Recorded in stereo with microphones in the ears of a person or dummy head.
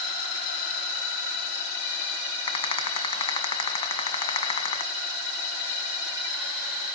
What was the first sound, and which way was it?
A rattle, 30° left (ahead or behind).